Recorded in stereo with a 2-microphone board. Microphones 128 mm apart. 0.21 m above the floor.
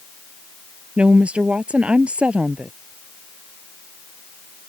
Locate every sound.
1.0 s a woman speaking: 10° right (ahead or behind)